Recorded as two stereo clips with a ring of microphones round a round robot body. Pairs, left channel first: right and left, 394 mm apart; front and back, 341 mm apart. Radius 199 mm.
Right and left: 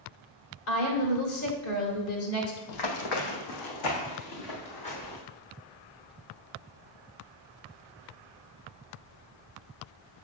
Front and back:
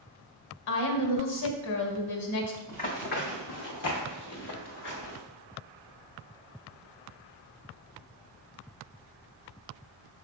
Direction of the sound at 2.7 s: 75° right.